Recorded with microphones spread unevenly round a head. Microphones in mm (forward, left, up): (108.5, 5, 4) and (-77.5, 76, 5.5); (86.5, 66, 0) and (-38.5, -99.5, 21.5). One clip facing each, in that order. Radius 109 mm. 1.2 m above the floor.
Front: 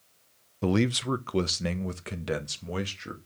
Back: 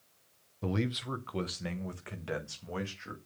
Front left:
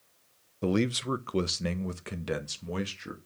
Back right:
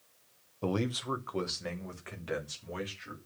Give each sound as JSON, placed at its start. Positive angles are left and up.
{"t": 0.6, "sound": "a man speaking", "azimuth_deg": -10, "distance_m": 0.7}